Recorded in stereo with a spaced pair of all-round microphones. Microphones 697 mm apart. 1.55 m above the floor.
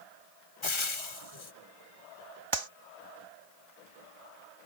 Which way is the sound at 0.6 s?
45° left (ahead or behind).